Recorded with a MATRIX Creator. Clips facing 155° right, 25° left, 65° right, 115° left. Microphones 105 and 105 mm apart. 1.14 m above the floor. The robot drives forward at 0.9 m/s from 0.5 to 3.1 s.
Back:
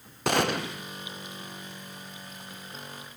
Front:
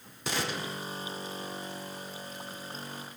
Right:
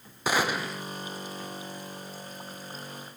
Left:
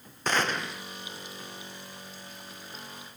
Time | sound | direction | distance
0.3 | a gunshot | 145° right | 0.7 m